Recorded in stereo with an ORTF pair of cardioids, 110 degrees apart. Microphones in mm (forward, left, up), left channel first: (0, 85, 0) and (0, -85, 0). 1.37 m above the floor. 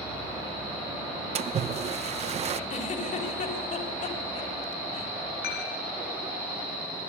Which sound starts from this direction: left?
Dishes clattering, at 5.4 s.